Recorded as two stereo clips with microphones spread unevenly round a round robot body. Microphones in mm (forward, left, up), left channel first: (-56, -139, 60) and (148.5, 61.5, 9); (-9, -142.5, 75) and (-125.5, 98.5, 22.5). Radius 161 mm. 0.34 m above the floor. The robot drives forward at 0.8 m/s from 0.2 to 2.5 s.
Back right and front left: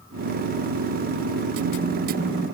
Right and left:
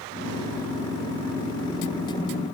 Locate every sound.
Only background noise.